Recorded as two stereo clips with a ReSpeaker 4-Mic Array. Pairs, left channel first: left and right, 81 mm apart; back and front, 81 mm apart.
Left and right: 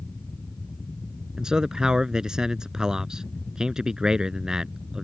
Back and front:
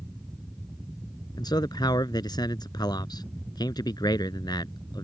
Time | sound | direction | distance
1.4 | a man speaking | 170° right | ?